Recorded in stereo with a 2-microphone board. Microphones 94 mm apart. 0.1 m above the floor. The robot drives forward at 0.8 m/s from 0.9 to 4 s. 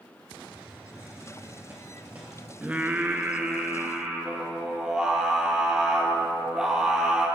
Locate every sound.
0.5 s a hiss: 25° right (ahead or behind), 1.1 m; by 2.5 s 15° right (ahead or behind), 1.9 m
2.6 s singing: 15° right (ahead or behind), 0.5 m; by 7.3 s 10° right (ahead or behind), 1.1 m